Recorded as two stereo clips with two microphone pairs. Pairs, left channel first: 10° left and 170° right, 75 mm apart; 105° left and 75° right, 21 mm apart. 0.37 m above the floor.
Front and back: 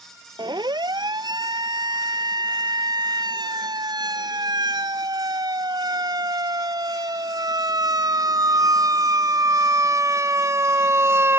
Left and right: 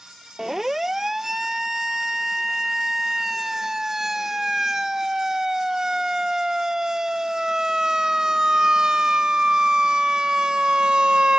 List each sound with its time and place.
0.4 s a siren: 155° right; by 11.4 s 120° right